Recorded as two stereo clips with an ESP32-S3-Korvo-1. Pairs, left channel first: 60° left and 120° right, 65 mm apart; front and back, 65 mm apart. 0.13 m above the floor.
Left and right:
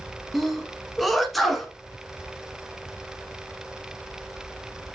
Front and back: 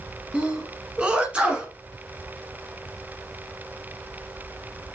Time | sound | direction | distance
0.3 | a sneeze | 145° left | 1.2 m